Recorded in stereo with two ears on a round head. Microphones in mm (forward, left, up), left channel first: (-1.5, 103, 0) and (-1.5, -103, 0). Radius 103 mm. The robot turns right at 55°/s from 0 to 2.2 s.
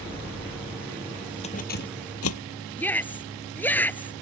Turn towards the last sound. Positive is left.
turn(degrees=10)  # may be behind; listen again after turning